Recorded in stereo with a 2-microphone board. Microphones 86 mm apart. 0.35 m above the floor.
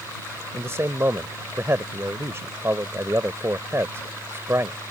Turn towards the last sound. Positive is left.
turn(degrees=-30)  # may be behind; listen again after turning